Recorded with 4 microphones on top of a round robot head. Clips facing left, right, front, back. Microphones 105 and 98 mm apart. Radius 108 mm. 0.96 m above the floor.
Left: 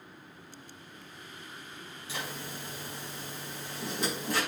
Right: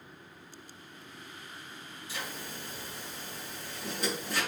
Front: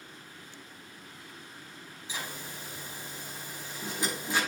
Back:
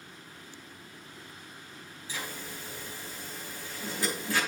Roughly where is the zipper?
Left.